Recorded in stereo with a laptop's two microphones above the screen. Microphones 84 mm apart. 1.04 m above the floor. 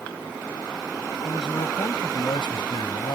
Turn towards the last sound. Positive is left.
turn(degrees=70)  # may be behind; listen again after turning